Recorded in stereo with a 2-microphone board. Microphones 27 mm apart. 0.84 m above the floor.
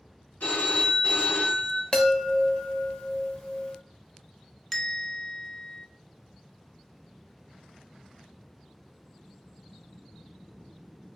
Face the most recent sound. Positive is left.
turn(degrees=5)  # may be behind; listen again after turning